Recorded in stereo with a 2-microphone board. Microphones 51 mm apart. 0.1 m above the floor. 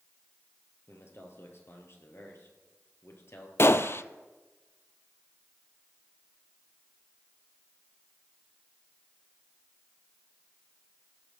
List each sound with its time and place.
0.9 s a man speaking: 55° left (ahead or behind), 3 m
3.6 s a gunshot: 55° left (ahead or behind), 0.5 m